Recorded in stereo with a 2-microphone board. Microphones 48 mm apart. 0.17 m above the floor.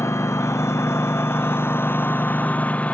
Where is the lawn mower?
85° left; by 3.0 s 30° left (ahead or behind).